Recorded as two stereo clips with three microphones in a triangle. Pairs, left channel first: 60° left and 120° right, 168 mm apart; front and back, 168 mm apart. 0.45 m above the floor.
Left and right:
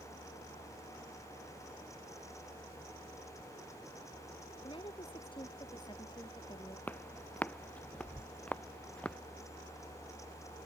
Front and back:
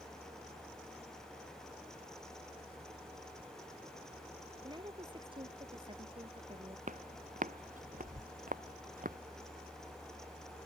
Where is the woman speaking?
120° left; by 6.8 s 125° left.